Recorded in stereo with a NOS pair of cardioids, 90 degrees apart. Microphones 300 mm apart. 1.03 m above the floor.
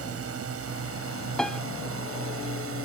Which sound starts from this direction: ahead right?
A drone, at 0.0 s.